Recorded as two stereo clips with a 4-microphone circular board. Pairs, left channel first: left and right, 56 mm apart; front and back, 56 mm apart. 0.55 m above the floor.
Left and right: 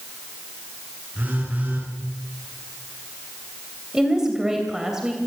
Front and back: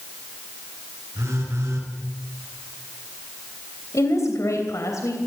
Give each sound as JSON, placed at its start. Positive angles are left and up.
{"t": 1.1, "sound": "a phone buzzing", "azimuth_deg": -150, "distance_m": 7.0}
{"t": 3.9, "sound": "a woman speaking", "azimuth_deg": -10, "distance_m": 3.0}